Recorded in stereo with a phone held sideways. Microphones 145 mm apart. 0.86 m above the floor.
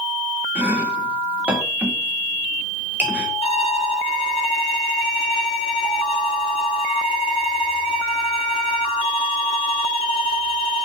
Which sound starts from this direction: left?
A violin, at 3.4 s.